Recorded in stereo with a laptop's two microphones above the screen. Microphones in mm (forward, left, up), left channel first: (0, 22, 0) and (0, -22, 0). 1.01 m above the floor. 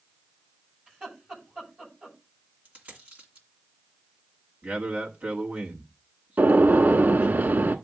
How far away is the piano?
No piano in this recording.